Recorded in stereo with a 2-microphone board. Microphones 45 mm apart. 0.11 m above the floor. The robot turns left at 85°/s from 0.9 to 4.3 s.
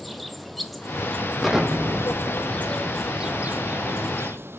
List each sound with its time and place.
0.0 s an insect: straight behind, 1.0 m; by 4.6 s 110° right, 1.0 m
1.4 s an explosion: centre (ahead or behind), 1.4 m; by 4.5 s 65° left (ahead or behind), 1.4 m